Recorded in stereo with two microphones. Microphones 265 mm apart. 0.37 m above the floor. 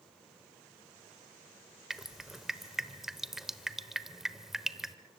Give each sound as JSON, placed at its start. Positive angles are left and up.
{"t": 1.9, "sound": "dripping", "side_deg": 0, "distance_m": 0.9}